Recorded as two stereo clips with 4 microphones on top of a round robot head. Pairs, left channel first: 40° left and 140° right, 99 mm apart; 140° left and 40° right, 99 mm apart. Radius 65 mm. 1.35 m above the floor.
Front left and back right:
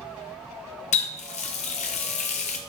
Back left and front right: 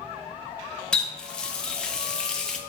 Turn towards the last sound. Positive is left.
turn(degrees=60)